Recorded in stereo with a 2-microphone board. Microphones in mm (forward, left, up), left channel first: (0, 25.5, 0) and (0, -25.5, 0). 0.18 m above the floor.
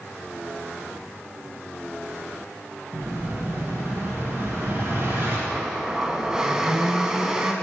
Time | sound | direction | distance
2.9 | an explosion | 55° right (ahead or behind) | 1.7 m
5.5 | a blender | 15° right (ahead or behind) | 0.5 m